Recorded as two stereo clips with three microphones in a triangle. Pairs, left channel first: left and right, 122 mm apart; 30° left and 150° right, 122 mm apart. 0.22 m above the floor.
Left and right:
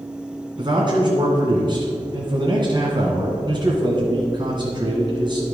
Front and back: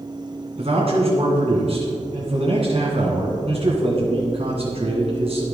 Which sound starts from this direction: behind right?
A man speaking, at 0.6 s.